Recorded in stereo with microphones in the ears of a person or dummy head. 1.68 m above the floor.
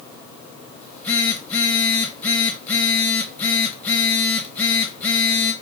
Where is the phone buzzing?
5° left (ahead or behind), 0.6 m.